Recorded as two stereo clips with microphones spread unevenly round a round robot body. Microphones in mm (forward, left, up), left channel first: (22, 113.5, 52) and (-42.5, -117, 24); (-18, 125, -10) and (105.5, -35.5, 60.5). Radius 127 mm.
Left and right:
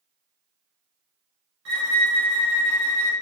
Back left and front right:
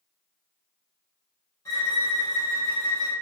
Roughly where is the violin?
Behind right.